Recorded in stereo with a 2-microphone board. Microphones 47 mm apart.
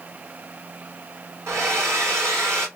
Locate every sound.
1.5 s a hair dryer: 80° right, 3.5 m